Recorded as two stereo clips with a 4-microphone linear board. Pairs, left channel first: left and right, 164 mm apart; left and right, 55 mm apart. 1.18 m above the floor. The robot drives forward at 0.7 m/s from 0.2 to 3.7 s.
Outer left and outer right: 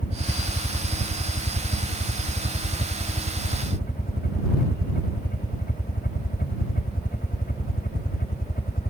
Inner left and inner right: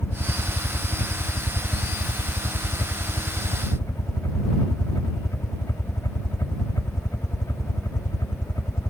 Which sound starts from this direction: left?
A helicopter, at 0.0 s.